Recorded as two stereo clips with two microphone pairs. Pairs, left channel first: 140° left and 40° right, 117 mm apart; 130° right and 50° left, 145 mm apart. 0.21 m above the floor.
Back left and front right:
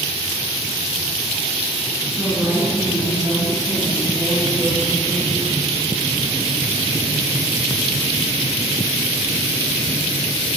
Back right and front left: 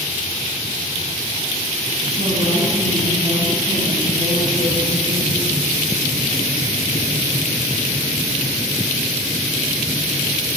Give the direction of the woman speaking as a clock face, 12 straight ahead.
11 o'clock.